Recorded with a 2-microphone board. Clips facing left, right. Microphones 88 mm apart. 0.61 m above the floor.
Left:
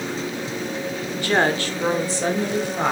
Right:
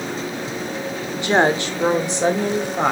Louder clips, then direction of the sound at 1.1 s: Right 3 dB; 20° right (ahead or behind).